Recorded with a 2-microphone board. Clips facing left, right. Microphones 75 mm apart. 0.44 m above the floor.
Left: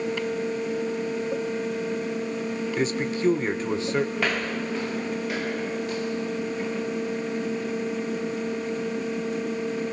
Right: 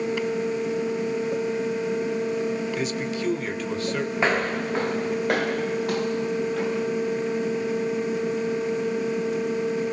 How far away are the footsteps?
About 1.3 m.